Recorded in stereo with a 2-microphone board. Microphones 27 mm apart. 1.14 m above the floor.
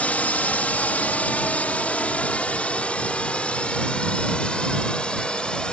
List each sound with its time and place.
0.0 s a drone: 60° left (ahead or behind); by 5.7 s 35° left (ahead or behind)